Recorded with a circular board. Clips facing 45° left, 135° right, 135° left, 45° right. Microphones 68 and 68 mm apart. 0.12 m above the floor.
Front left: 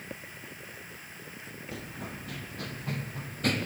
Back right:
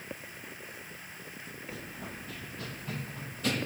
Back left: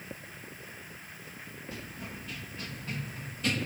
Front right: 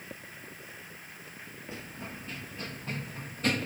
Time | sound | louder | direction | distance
1.7 | running footsteps | front left 3 dB, front right 1 dB | 25° left | 4.5 m